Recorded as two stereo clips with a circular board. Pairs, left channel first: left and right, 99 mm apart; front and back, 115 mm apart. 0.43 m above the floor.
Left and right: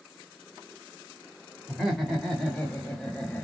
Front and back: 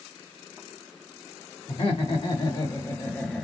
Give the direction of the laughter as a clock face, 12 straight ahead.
12 o'clock.